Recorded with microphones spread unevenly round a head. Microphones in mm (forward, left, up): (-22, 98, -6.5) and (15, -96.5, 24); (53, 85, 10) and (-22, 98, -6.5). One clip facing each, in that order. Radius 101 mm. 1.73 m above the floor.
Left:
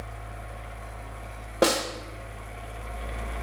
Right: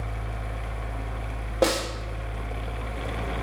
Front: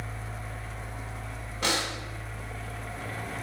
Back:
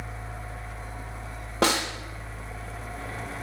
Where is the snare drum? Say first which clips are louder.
Even, back 6 dB; 175° right, 1.7 m.